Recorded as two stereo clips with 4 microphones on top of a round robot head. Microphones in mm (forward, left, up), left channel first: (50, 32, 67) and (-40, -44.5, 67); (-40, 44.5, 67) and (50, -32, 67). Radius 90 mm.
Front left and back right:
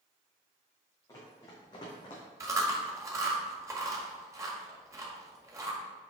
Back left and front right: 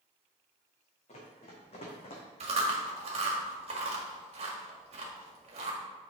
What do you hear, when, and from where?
1.1 s running footsteps: 105° left, 3 m; by 2.2 s 95° left, 2 m
2.4 s chewing: 75° right, 1.7 m